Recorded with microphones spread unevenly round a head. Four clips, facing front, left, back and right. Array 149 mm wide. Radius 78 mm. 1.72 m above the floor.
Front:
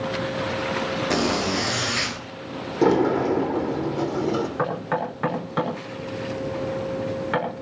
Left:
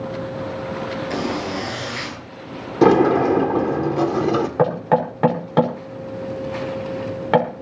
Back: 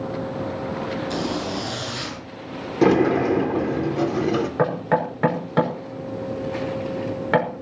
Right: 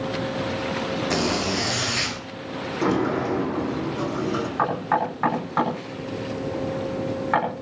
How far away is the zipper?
About 9.5 m.